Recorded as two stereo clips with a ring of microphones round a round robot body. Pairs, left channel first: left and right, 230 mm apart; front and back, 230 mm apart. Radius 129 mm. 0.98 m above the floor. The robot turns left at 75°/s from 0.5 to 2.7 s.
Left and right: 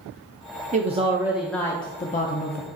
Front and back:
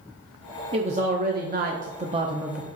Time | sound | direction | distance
0.7 | a man speaking | 125° right | 0.7 m